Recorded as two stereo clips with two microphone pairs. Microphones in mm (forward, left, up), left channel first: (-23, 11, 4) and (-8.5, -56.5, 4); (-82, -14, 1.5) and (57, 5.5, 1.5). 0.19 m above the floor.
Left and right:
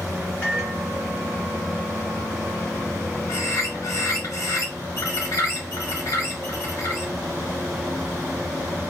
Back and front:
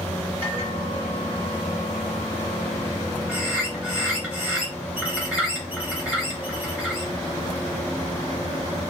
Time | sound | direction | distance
0.4 | a microwave | 45° left | 1.9 m
3.3 | a bird | 90° left | 1.7 m